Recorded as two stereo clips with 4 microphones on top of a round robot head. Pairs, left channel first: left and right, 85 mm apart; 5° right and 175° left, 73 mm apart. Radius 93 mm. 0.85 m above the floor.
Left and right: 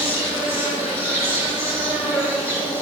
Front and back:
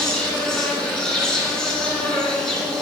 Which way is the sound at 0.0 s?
75° left.